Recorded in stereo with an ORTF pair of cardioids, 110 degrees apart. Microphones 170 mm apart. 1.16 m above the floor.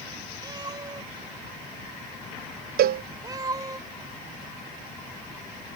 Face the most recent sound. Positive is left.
turn(degrees=-65)